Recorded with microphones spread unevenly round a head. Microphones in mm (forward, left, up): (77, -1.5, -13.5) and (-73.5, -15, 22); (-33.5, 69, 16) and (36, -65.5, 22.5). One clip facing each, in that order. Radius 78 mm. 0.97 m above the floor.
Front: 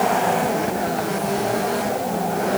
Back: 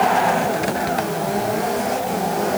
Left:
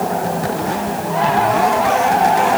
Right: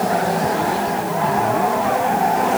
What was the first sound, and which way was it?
Only background noise.